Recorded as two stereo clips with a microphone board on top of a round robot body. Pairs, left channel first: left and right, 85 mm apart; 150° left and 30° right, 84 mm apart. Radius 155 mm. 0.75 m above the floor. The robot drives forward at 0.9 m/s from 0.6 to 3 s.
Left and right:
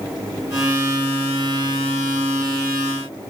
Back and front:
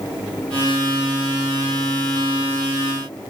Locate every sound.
Only background noise.